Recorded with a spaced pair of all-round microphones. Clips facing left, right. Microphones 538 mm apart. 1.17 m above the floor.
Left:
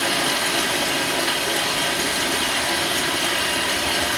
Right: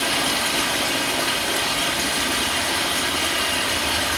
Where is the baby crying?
No baby crying in this recording.